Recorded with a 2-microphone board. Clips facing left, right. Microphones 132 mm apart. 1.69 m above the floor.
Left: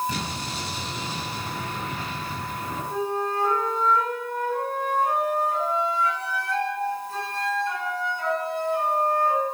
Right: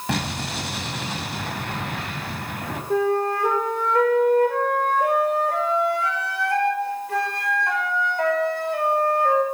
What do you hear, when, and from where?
0.1 s an explosion: 75° right (ahead or behind), 5.5 m
2.9 s a flute: 70° right (ahead or behind), 6 m